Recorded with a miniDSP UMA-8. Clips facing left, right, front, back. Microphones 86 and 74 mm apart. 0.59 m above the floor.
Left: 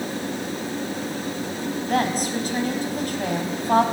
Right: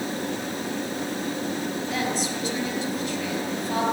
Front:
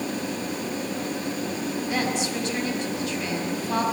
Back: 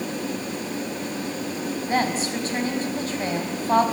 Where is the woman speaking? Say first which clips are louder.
Left 7 dB, back 4 dB; 130° left, 4.5 m.